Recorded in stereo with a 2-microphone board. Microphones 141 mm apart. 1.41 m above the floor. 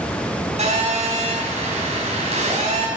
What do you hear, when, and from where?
0.6 s a phone buzzing: 55° right (ahead or behind), 5.5 m